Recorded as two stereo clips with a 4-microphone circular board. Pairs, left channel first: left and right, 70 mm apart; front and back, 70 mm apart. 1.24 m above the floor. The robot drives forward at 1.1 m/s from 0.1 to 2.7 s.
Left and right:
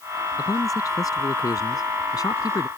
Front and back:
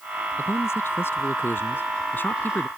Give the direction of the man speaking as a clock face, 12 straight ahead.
10 o'clock.